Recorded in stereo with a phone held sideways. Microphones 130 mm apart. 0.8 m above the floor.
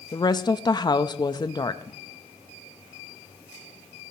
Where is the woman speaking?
35° left (ahead or behind), 0.6 m.